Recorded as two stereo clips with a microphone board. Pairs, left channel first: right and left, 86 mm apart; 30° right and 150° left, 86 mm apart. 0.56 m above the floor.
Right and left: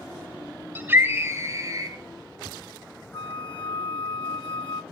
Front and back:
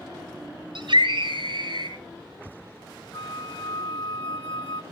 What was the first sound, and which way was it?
A scream, 155° left.